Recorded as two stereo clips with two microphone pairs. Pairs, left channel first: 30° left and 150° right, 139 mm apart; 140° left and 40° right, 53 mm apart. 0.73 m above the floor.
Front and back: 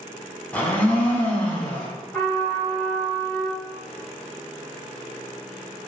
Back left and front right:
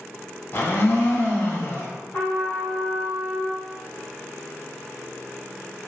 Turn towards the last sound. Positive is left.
turn(degrees=115)